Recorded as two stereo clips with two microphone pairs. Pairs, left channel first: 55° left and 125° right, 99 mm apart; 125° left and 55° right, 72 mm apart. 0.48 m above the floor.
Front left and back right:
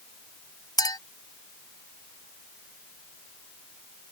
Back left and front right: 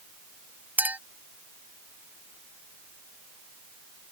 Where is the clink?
10° left.